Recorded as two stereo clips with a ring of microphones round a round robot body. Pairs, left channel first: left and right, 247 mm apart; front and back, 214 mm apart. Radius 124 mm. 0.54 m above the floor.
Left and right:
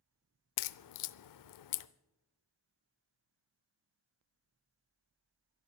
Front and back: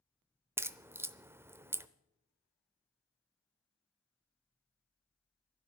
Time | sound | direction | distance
0.6 | a crack | 100° left | 0.6 m